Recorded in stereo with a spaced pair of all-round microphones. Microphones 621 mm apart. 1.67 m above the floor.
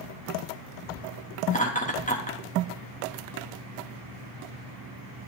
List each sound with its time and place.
1.5 s laughter: 10° left (ahead or behind), 3 m